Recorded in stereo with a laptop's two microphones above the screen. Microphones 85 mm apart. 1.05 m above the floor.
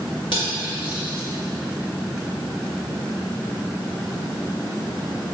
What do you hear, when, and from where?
0.3 s cutlery clinking: 75° left (ahead or behind), 2 m